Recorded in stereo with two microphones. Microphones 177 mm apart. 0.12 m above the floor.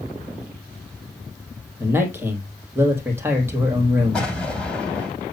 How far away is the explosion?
About 3.5 m.